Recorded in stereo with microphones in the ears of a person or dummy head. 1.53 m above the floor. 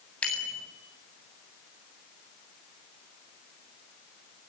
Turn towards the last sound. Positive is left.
turn(degrees=20)  # may be behind; listen again after turning